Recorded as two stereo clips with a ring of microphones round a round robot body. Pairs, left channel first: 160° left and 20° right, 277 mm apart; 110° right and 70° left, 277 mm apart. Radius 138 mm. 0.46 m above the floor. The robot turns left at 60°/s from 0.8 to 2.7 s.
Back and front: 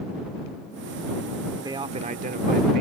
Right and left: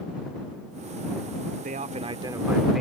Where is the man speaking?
45° left; by 2.8 s 20° right.